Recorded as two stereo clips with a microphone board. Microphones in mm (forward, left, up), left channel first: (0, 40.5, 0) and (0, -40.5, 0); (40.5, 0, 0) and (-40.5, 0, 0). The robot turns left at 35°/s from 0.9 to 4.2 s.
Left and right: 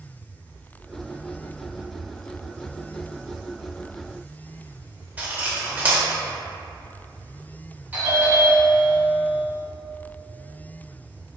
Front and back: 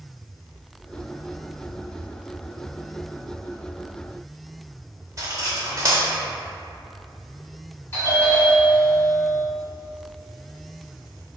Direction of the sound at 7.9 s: 40° right.